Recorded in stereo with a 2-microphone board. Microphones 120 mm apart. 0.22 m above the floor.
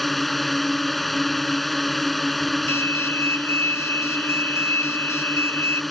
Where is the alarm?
20° left (ahead or behind).